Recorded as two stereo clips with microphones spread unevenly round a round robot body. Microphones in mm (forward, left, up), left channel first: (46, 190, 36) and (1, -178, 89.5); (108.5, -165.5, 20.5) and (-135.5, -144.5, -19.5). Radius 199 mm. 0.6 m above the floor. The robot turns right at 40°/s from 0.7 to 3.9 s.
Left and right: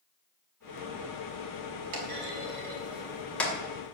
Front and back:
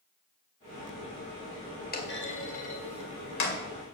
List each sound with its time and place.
1.9 s a clunk: 60° right, 2.5 m; by 3.6 s 5° left, 2.5 m